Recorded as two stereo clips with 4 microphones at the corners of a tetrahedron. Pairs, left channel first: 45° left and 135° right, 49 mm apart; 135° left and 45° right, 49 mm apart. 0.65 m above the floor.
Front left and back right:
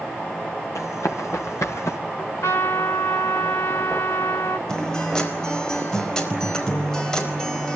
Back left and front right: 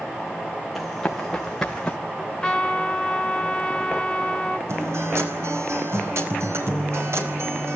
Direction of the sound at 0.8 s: 50° left.